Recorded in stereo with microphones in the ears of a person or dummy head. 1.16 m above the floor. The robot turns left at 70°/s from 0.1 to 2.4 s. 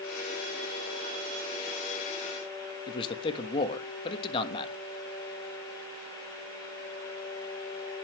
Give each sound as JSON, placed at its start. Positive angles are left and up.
{"t": 2.9, "sound": "a man speaking", "side_deg": 30, "distance_m": 1.2}